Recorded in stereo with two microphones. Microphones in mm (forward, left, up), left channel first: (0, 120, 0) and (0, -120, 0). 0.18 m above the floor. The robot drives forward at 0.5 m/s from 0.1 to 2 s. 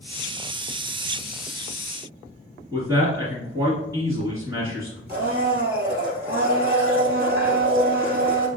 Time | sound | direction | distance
2.7 | a man speaking | 10° right (ahead or behind) | 1.9 m
5.1 | a blender | 40° right (ahead or behind) | 1.9 m